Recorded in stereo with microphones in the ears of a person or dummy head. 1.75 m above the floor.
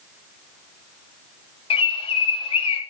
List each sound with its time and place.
1.7 s a bird: 35° left (ahead or behind), 3 m